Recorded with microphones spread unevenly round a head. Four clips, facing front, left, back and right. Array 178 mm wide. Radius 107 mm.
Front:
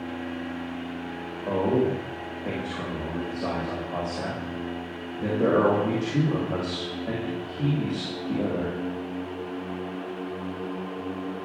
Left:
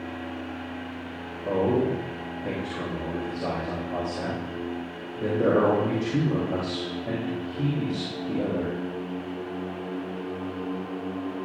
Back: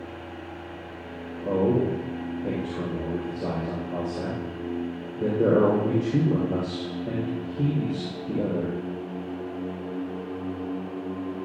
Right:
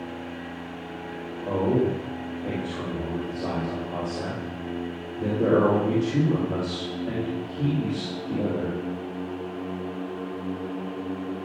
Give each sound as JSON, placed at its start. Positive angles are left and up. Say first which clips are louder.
{"t": 1.4, "sound": "a man speaking", "louder": "even, back 1 dB", "azimuth_deg": -175, "distance_m": 4.0}